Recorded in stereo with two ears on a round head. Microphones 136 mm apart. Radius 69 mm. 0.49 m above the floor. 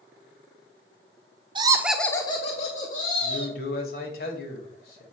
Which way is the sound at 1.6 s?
30° right (ahead or behind).